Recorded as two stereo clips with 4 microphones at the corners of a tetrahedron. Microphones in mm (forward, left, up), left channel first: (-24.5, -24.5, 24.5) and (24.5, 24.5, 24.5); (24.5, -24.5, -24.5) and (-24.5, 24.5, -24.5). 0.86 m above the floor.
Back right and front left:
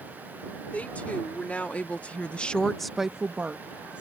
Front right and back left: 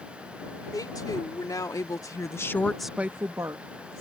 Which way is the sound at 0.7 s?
65° right.